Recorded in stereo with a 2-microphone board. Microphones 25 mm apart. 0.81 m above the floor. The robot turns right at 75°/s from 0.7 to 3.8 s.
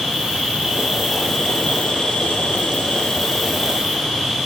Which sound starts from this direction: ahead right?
An insect, at 0.0 s.